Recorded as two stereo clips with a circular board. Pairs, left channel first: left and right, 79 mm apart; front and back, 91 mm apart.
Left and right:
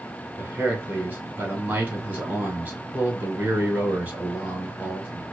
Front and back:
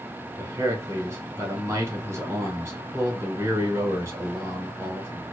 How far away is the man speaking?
About 1.3 m.